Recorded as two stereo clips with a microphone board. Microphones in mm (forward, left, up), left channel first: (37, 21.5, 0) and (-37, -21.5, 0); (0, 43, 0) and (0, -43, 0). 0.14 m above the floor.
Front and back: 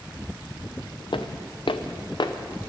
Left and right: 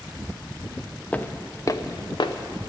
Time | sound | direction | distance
1.1 | footsteps | 15° left | 0.9 m